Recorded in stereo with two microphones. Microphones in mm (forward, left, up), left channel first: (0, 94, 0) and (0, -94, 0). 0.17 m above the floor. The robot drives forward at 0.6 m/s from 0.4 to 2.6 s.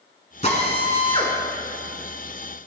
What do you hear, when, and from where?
0.4 s a drill: 35° left (ahead or behind), 1.1 m; by 1.4 s 30° left (ahead or behind), 1.4 m